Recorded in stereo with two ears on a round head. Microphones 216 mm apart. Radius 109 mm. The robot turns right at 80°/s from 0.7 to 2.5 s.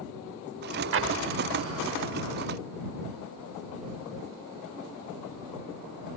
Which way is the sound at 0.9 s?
55° right (ahead or behind).